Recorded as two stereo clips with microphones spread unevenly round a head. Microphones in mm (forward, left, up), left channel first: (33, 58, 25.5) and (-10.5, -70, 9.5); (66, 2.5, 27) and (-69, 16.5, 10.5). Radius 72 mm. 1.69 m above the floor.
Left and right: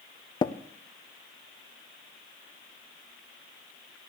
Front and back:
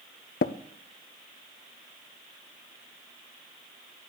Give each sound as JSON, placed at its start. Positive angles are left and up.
{"t": 0.4, "sound": "tapping", "azimuth_deg": 10, "distance_m": 0.5}